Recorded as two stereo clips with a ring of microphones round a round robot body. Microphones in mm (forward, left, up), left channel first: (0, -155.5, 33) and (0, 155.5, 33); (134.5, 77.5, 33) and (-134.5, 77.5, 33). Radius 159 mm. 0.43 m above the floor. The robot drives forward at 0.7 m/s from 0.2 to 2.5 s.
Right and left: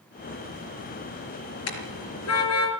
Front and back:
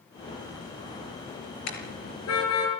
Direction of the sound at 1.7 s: 45° right.